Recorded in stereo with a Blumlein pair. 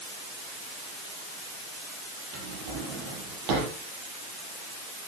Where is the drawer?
35° right, 8 m.